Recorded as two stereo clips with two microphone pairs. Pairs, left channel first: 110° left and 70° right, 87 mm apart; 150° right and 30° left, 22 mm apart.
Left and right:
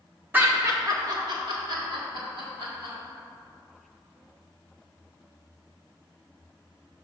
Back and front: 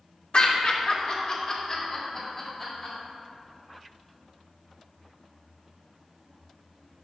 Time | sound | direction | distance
0.3 | laughter | 135° right | 1.2 m